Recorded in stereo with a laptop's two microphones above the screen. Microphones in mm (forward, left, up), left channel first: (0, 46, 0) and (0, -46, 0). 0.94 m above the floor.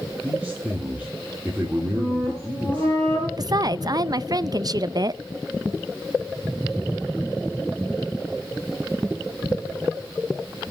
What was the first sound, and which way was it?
A man speaking, 15° right (ahead or behind).